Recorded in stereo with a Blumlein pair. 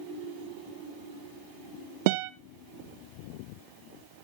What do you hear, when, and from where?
2.1 s a guitar: 50° right, 0.6 m